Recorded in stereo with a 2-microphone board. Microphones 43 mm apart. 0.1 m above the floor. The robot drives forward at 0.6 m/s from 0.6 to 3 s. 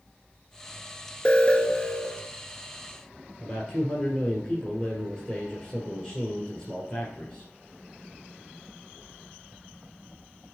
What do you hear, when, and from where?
1.2 s an alarm: 25° left (ahead or behind), 0.9 m; by 2.3 s 20° left (ahead or behind), 1.1 m
3.4 s a man speaking: 20° left (ahead or behind), 2 m